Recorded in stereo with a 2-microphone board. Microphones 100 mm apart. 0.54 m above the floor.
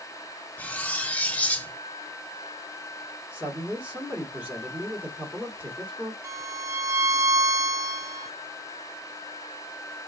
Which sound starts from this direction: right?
A violin, at 6.2 s.